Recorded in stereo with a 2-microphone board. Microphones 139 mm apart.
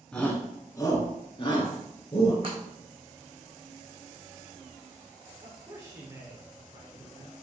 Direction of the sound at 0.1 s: 5° left (ahead or behind).